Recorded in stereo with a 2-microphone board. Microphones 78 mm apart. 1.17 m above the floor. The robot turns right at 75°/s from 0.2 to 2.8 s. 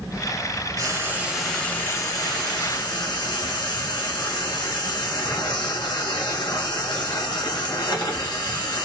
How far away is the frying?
About 1.6 m.